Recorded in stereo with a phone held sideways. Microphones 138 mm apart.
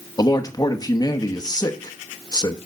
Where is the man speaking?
30° left (ahead or behind), 0.9 m.